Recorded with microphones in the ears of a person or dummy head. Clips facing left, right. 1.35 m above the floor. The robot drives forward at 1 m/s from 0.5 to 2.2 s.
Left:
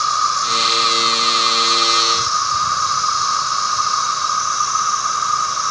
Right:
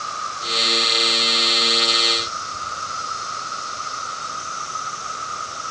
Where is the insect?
75° left (ahead or behind); by 5.7 s 85° left.